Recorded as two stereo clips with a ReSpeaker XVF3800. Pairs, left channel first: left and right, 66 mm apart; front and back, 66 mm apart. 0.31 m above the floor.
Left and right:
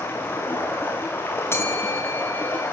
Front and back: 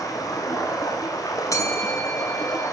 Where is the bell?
35° left, 5.5 m.